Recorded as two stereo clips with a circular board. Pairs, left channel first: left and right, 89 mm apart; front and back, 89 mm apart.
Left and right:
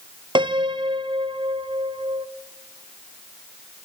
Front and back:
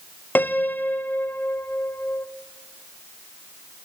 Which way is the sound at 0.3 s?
70° right.